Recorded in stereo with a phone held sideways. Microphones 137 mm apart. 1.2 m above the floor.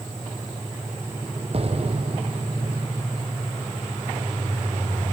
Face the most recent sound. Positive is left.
turn(degrees=-45)  # may be behind; listen again after turning